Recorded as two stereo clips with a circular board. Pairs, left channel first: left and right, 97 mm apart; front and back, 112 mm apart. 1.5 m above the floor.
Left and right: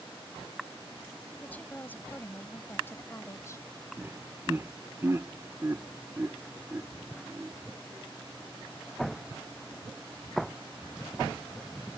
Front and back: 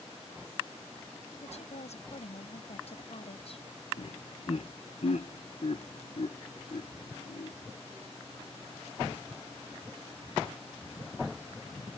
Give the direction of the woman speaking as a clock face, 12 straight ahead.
11 o'clock.